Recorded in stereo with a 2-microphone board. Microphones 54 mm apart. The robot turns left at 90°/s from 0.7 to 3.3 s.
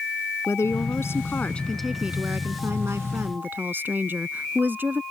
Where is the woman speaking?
100° left; by 5.0 s 135° right.